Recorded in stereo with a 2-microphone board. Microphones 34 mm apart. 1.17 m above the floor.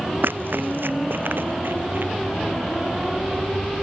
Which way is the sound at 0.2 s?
70° right (ahead or behind).